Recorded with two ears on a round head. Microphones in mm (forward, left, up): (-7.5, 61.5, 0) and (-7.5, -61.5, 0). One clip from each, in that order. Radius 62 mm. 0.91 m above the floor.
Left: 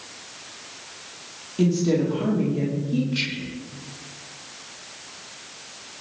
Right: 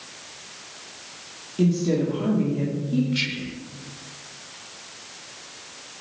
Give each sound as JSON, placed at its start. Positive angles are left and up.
{"t": 1.6, "sound": "a woman speaking", "side_deg": 15, "distance_m": 2.0}
{"t": 3.1, "sound": "whispering", "side_deg": -10, "distance_m": 0.5}